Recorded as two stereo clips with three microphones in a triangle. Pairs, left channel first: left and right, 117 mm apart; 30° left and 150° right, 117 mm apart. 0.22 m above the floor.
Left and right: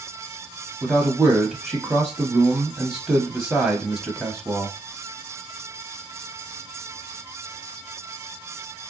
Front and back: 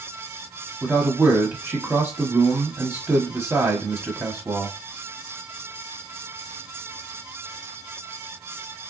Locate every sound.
0.8 s a man speaking: 170° right, 1.0 m